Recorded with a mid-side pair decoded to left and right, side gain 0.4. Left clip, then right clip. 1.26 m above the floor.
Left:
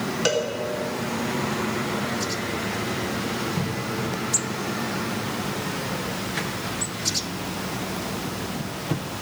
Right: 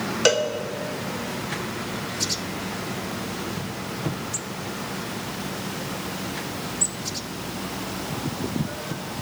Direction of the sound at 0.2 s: 40° right.